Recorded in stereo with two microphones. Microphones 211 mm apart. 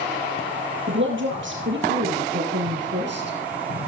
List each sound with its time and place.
0.9 s a woman speaking: 65° right (ahead or behind), 4.5 m; by 3.4 s 55° right (ahead or behind), 3.5 m